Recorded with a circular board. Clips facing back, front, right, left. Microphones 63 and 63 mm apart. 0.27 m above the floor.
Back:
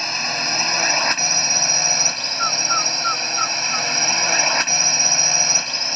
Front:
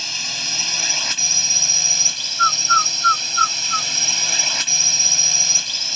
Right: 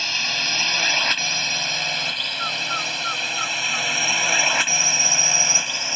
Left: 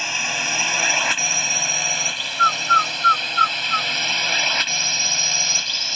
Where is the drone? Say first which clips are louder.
Back 6 dB, left 2 dB; 160° left; by 6.0 s 155° right.